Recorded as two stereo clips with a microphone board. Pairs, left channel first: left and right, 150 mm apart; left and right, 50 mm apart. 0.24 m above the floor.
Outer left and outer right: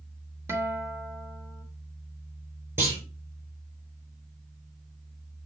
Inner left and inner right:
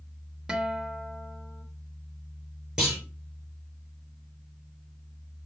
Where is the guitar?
15° right (ahead or behind), 0.9 m.